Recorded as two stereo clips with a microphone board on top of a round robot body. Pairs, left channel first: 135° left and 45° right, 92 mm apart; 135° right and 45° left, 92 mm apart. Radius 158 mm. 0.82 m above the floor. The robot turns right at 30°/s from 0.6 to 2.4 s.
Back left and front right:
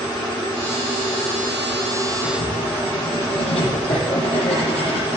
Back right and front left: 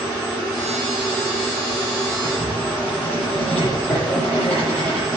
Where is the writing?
145° left, 9.5 m; by 5.2 s 150° left, 9.5 m.